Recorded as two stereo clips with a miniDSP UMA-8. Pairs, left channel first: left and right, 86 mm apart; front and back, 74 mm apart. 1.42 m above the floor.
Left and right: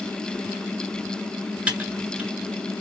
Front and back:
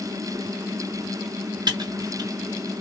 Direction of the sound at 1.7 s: 165° right.